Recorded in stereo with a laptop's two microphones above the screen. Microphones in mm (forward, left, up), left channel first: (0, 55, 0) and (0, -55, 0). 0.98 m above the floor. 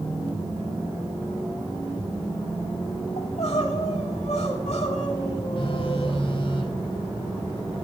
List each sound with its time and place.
3.2 s crying: 85° left, 3 m
5.6 s a phone buzzing: 50° left (ahead or behind), 1.1 m